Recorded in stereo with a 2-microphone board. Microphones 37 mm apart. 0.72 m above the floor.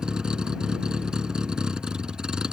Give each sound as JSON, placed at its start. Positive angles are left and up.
{"t": 0.0, "sound": "a vehicle", "side_deg": -25}